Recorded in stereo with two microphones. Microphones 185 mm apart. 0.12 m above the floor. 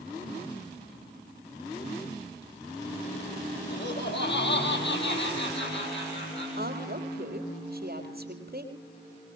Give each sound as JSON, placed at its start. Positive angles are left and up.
{"t": 3.7, "sound": "laughter", "side_deg": 70, "distance_m": 4.5}
{"t": 6.6, "sound": "a woman speaking", "side_deg": -55, "distance_m": 3.5}